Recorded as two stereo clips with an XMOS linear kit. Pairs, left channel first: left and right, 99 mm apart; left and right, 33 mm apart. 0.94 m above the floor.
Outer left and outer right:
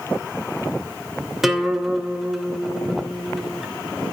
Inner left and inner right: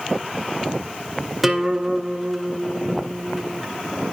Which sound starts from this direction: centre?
A guitar, at 1.4 s.